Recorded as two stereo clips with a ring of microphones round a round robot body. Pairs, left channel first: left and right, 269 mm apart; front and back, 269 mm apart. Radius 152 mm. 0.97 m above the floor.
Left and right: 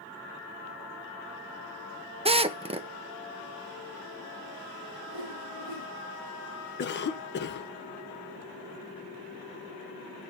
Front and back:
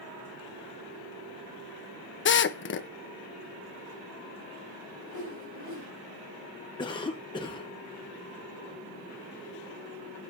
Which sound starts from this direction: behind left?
A whoosh, at 5.1 s.